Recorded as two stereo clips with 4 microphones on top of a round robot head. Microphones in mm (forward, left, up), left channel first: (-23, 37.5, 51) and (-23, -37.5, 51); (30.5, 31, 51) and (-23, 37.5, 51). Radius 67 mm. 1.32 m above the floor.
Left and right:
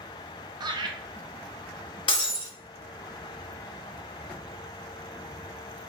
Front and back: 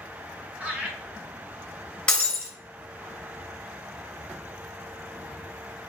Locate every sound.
0.6 s laughter: 120° right, 1.1 m
2.1 s breaking glass: 55° left, 1.0 m